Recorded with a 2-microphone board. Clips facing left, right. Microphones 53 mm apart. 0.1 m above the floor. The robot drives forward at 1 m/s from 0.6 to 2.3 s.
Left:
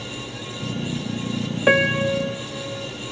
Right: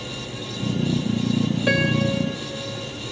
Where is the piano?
25° left (ahead or behind), 0.5 m; by 2.9 s 15° left (ahead or behind), 1.0 m.